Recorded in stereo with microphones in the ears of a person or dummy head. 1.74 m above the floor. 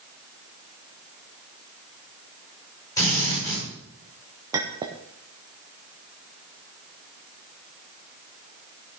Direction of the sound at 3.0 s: 15° left (ahead or behind).